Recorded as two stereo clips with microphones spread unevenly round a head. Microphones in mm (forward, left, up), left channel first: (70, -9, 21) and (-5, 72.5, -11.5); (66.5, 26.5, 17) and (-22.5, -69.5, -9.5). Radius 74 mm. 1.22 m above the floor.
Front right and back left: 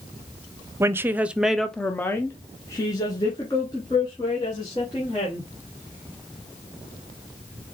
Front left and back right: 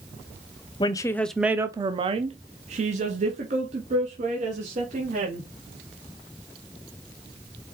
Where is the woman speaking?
105° left, 0.7 m; by 5.5 s 115° right, 3 m.